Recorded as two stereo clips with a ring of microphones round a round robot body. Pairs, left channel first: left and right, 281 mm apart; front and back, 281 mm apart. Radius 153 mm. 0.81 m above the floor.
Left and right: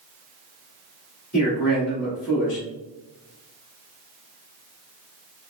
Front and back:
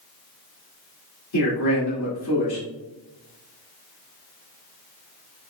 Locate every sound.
1.3 s a man speaking: 30° left, 2 m